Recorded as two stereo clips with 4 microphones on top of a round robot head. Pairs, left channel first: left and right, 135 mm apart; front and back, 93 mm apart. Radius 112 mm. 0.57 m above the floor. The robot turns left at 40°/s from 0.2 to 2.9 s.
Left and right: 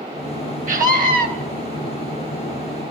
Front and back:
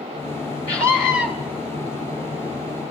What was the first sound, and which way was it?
A scream, 75° right.